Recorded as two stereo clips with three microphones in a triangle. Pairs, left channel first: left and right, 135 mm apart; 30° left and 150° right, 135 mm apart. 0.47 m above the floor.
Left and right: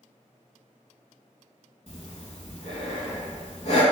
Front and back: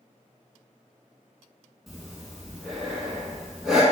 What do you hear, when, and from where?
1.9 s breathing: 125° left, 0.6 m